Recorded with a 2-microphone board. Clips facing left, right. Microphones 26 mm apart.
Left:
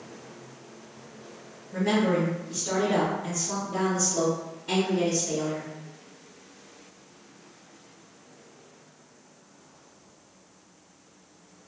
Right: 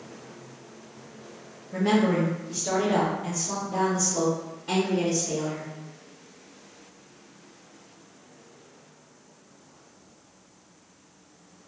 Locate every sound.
1.7 s a woman speaking: 75° right (ahead or behind), 0.9 m; by 5.7 s 10° right (ahead or behind), 2 m